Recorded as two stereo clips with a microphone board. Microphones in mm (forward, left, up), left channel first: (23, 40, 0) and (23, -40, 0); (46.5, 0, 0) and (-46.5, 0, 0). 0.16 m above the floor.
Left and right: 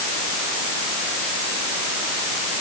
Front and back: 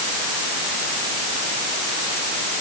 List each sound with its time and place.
Only background noise.